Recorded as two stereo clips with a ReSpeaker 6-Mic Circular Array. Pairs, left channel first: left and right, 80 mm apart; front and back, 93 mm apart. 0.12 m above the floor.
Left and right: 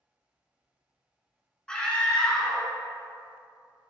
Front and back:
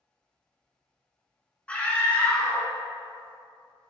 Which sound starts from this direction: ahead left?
A scream, at 1.7 s.